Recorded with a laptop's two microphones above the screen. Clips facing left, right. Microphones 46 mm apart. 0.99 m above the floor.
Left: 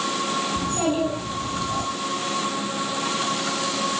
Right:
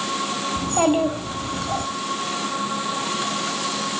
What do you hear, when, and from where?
0.6 s a child speaking: 55° right (ahead or behind), 2.5 m